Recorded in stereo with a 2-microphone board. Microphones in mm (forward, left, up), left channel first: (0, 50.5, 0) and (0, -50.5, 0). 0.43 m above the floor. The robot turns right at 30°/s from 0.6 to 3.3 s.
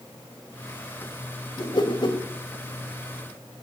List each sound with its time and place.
1.6 s a whoosh: 40° left (ahead or behind), 1.6 m; by 2.2 s 55° left (ahead or behind), 1.6 m